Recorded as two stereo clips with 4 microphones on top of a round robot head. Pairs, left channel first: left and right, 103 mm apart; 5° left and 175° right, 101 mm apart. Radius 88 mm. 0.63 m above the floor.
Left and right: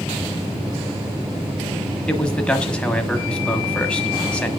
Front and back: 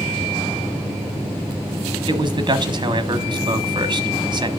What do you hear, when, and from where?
2.1 s a man speaking: 170° left, 1.4 m